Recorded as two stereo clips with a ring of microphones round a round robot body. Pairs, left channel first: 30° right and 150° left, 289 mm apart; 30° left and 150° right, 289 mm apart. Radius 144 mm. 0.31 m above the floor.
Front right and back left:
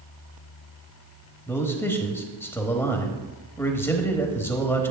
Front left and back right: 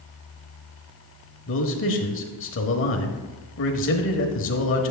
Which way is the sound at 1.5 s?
50° left.